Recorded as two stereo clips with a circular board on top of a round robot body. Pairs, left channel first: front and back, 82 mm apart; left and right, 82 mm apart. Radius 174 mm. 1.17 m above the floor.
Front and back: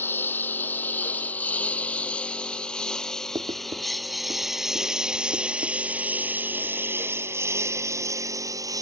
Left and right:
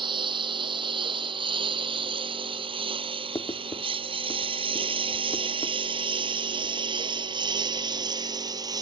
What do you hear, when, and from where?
0.0 s a lawn mower: 65° right; by 8.8 s 130° right
3.4 s writing: 145° left